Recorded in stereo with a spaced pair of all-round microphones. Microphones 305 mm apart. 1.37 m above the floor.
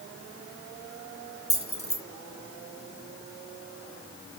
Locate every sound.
1.5 s keys jangling: 35° left (ahead or behind), 2.5 m